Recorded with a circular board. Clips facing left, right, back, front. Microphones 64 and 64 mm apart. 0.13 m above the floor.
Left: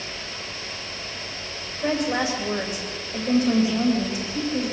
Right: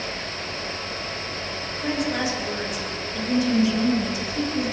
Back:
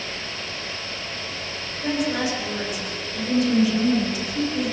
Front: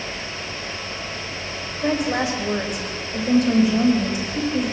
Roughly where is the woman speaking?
Ahead left.